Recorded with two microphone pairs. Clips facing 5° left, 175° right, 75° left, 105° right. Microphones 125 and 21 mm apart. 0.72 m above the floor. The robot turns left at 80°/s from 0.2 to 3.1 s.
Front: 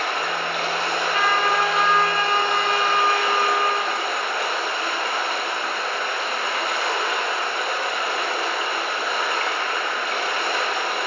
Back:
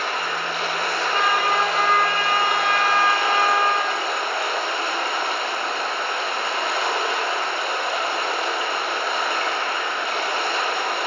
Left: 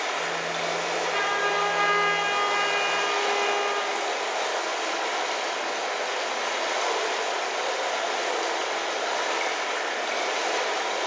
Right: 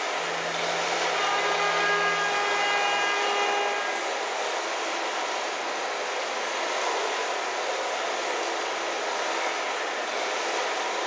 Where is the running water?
5° right, 1.3 m; by 11.1 s 125° left, 1.3 m.